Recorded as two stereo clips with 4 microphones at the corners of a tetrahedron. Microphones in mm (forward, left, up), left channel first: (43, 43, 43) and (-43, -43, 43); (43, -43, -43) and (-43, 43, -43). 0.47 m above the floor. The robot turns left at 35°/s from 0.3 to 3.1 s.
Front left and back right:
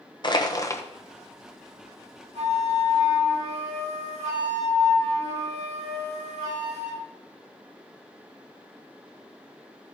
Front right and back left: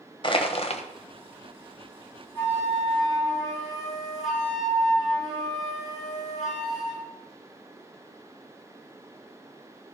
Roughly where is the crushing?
Ahead.